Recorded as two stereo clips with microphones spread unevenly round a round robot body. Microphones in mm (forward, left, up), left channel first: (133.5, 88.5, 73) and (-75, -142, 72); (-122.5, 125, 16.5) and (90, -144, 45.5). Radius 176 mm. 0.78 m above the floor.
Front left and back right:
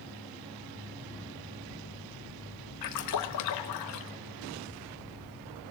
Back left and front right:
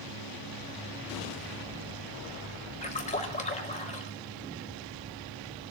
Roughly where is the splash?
Ahead left.